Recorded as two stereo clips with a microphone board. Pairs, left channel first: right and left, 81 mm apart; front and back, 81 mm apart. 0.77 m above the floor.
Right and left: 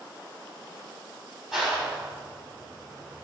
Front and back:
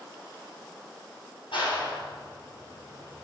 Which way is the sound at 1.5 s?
5° left.